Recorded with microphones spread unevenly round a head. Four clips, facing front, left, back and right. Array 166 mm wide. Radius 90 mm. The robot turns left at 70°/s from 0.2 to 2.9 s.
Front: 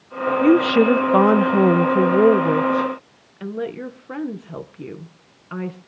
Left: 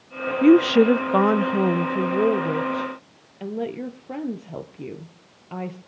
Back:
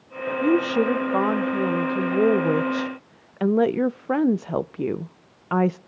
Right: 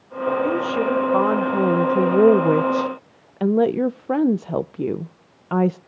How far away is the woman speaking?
About 0.6 m.